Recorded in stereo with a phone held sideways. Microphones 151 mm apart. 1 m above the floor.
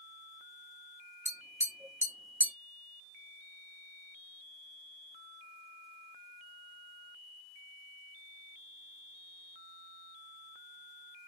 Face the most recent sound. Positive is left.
turn(degrees=-15)  # may be behind; listen again after turning